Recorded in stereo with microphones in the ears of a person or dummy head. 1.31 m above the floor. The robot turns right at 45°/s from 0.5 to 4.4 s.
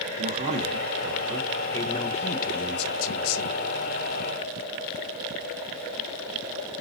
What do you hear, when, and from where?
0.2 s a man speaking: 40° right, 1.2 m; by 3.6 s 100° left, 1.2 m